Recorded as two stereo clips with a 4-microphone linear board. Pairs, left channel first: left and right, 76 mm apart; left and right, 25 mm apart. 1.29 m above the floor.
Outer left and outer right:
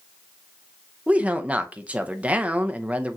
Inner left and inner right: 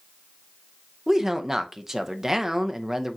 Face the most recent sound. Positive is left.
turn(degrees=-20)  # may be behind; listen again after turning